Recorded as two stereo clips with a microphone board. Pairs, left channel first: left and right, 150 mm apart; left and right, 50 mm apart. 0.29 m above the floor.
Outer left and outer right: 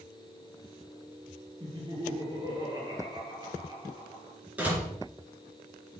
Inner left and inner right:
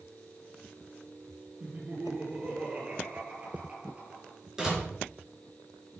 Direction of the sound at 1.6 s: 25° right (ahead or behind).